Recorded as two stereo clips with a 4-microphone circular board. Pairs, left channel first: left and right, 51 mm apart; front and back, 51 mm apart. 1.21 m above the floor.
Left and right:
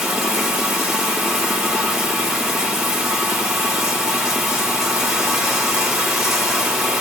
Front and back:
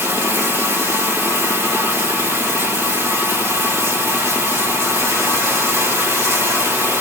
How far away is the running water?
About 2.5 m.